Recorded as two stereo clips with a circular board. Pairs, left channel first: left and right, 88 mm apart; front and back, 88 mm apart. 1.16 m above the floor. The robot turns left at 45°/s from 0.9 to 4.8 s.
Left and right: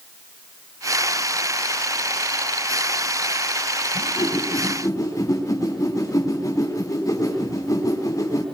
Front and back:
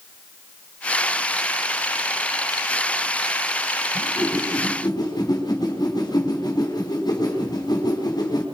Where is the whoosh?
80° left, 4.5 m; by 8.4 s 40° left, 4.5 m.